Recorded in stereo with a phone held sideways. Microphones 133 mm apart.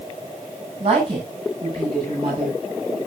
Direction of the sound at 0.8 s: 40° right (ahead or behind).